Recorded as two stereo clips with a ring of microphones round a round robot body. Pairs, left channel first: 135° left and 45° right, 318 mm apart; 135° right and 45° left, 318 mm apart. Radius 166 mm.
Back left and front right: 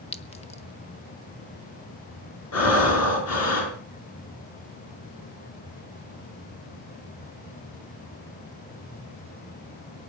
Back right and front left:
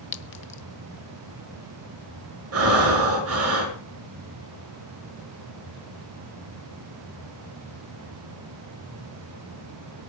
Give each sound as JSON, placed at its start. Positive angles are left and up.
{"t": 0.1, "sound": "a clink", "azimuth_deg": -165, "distance_m": 0.9}
{"t": 2.5, "sound": "breathing", "azimuth_deg": 90, "distance_m": 5.5}